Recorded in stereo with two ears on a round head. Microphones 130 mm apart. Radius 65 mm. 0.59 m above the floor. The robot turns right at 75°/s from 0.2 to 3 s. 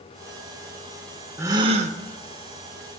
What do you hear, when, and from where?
1.4 s a gasp: 165° right, 0.5 m; by 2.0 s 120° right, 0.5 m